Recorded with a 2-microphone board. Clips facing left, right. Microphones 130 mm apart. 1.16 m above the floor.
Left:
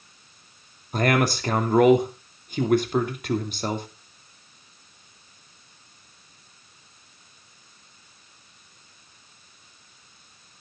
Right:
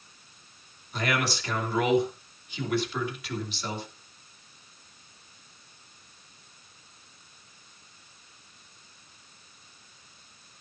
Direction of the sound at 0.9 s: 55° left (ahead or behind).